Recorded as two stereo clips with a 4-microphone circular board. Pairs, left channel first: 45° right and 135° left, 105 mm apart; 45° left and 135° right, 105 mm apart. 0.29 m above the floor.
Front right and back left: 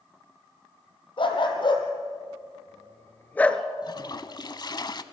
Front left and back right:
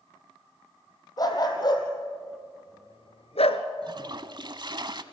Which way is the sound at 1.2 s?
5° right.